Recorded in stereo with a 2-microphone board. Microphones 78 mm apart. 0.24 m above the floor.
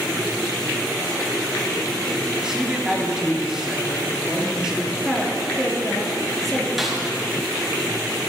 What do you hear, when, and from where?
2.4 s a man speaking: 10° right (ahead or behind), 3.5 m
5.0 s a woman speaking: 5° left (ahead or behind), 3.5 m
6.8 s a snare drum: centre (ahead or behind), 3 m